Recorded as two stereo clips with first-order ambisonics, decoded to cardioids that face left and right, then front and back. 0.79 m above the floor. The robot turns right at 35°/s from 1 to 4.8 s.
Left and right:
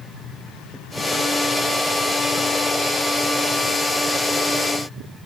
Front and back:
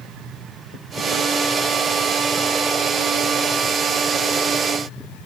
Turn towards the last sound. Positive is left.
No sound to turn to.